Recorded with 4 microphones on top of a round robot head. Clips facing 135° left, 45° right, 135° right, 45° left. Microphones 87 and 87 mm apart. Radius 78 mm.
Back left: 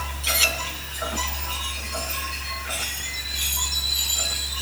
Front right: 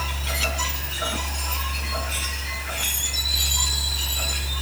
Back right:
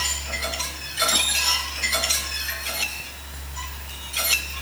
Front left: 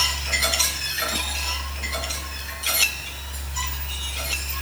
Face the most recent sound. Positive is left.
No sound to turn to.